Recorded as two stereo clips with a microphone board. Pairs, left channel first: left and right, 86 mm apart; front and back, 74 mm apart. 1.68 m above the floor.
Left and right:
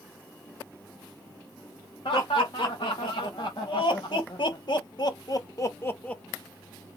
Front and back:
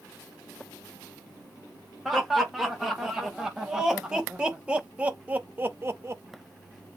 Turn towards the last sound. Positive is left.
turn(degrees=165)